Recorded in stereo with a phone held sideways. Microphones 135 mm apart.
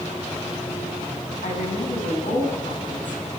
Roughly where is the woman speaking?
Left.